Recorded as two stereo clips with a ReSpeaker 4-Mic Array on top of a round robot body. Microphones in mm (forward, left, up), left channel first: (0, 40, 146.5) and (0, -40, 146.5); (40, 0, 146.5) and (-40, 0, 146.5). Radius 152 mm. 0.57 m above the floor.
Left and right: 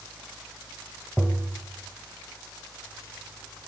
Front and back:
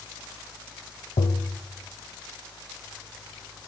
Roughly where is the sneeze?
No sneeze in this recording.